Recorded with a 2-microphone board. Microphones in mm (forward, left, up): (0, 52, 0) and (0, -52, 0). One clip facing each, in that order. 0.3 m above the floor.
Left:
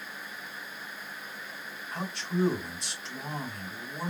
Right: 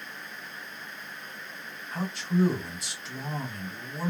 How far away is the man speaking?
About 1.6 m.